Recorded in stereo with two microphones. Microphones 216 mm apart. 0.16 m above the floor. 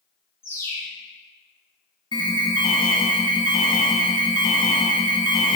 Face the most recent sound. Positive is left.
turn(degrees=25)  # may be behind; listen again after turning